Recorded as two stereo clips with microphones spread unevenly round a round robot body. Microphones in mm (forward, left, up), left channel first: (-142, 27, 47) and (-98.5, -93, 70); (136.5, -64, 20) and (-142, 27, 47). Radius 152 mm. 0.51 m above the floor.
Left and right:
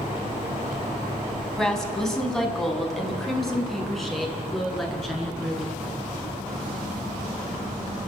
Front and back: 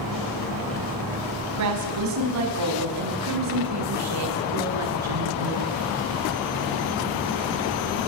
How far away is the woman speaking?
About 4.5 m.